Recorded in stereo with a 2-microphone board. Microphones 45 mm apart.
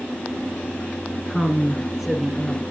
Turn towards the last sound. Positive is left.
turn(degrees=-10)  # may be behind; listen again after turning